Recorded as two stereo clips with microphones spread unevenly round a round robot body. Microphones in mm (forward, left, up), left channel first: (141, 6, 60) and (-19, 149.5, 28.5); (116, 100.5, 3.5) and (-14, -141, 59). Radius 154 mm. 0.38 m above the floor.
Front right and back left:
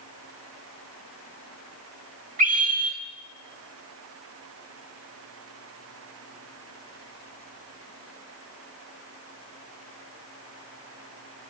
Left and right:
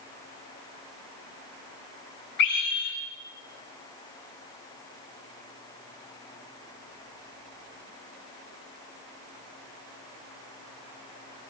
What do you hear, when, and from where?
2.4 s a scream: 95° left, 2.5 m